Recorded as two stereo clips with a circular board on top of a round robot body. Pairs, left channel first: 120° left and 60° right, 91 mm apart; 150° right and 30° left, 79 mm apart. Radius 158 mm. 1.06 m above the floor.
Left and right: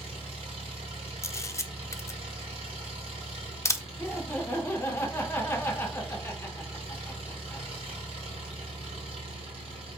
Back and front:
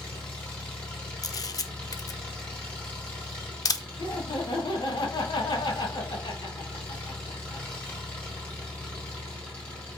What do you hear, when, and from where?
0.0 s an engine running: 75° right, 1.1 m
1.2 s a camera shutter: 175° left, 0.6 m
4.0 s laughter: 175° right, 1.5 m